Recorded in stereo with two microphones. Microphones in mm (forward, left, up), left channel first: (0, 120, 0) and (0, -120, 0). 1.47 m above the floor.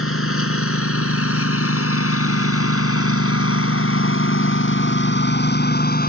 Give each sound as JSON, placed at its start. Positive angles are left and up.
{"t": 0.0, "sound": "a lawn mower", "side_deg": 65}